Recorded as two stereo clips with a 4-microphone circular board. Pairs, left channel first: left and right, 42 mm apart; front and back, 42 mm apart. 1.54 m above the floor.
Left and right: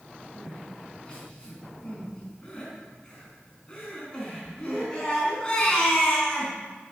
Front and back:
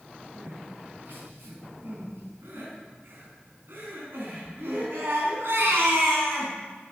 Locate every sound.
0.3 s crying: 160° left, 5 m